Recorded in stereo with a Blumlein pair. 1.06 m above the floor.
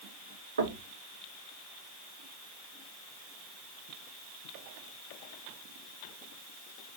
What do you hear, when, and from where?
0.6 s knocking: 70° right, 1.1 m